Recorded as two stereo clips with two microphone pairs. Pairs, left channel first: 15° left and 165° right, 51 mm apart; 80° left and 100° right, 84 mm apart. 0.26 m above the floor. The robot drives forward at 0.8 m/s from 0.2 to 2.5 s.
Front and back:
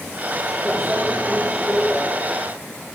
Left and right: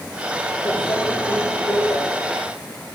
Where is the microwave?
95° left, 5.5 m; by 2.0 s 105° left, 6 m.